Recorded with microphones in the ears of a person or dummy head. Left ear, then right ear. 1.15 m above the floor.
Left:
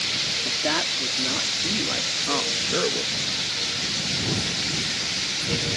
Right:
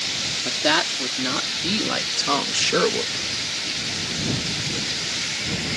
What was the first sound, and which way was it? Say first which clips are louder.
A woman speaking: right 3 dB; 75° right (ahead or behind).